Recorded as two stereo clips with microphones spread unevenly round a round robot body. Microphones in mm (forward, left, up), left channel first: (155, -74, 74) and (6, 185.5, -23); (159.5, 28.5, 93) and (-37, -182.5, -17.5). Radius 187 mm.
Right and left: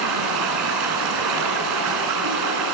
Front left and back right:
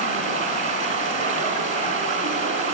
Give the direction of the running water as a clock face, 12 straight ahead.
7 o'clock.